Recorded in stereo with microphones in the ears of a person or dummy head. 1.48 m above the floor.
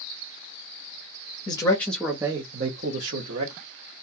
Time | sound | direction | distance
1.5 | a man speaking | 25° left (ahead or behind) | 0.9 m